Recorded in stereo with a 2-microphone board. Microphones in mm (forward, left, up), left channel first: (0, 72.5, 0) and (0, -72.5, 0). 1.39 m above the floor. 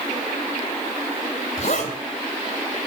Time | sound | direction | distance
1.6 | a zipper | 55° left (ahead or behind) | 3.5 m